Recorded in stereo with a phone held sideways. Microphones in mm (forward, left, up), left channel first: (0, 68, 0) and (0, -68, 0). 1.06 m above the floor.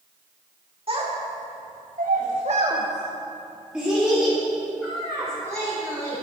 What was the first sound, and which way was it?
A child speaking, 45° right (ahead or behind).